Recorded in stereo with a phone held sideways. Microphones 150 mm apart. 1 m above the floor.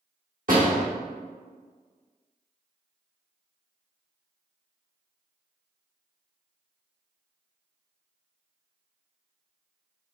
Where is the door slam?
70° right (ahead or behind), 1.4 m.